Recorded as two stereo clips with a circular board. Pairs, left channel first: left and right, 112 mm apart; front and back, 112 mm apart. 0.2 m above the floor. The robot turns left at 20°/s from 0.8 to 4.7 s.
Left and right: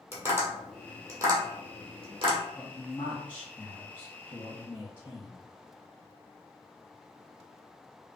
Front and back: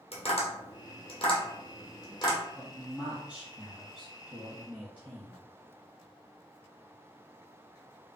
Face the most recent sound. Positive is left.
turn(degrees=110)